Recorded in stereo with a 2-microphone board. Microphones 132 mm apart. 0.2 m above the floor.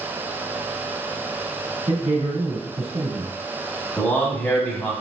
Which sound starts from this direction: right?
A man speaking, at 1.9 s.